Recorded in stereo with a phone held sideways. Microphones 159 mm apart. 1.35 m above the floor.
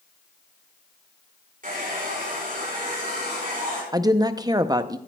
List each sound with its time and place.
1.6 s a hair dryer: 60° right (ahead or behind), 4.5 m
3.9 s a woman speaking: 25° right (ahead or behind), 0.6 m